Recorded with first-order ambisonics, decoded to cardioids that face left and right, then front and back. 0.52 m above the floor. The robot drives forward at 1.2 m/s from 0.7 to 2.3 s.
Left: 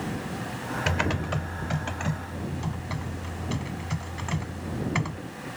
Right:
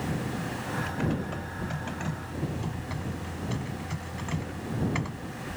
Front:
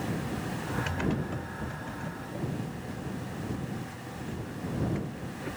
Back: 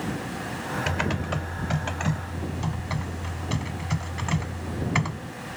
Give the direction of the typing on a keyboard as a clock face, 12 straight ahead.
8 o'clock.